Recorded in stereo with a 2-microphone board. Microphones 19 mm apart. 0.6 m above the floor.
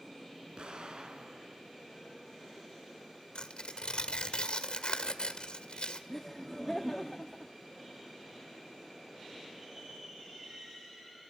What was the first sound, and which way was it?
An explosion, 65° right (ahead or behind).